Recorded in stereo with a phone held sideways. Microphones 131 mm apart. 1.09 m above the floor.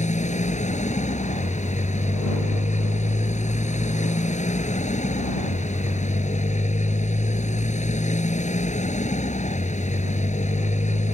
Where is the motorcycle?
65° left (ahead or behind).